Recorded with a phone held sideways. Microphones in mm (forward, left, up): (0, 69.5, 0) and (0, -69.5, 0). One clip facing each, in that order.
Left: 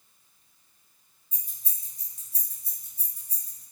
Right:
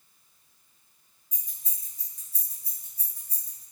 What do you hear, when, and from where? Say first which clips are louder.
1.3 s keys jangling: even; 40° right (ahead or behind), 1.0 m; by 3.6 s 60° right (ahead or behind), 1.5 m